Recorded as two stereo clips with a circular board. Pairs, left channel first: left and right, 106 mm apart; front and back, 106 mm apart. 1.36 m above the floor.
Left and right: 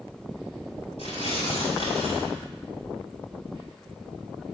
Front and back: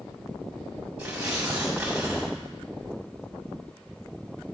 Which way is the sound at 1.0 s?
100° left.